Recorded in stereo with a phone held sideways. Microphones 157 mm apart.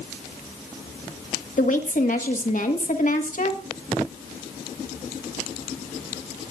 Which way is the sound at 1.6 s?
55° left (ahead or behind).